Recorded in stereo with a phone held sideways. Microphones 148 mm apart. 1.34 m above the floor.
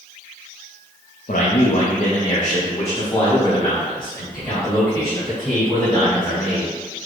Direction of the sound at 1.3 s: 70° left (ahead or behind).